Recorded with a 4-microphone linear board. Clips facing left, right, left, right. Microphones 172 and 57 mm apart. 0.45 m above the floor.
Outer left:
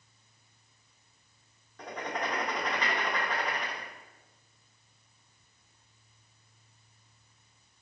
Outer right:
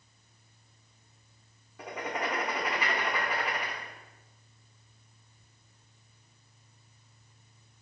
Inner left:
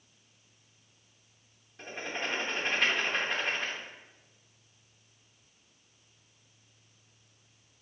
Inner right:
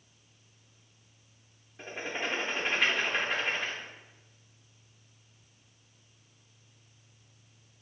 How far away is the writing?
About 0.7 m.